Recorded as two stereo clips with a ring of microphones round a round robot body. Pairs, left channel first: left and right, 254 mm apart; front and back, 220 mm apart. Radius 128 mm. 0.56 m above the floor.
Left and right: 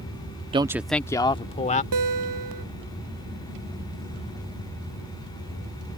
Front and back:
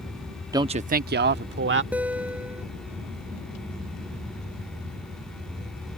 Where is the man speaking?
130° right; by 1.8 s 150° left.